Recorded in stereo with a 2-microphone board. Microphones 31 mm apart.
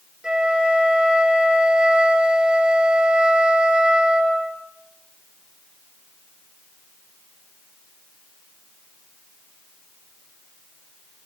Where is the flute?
25° right (ahead or behind), 3.5 m.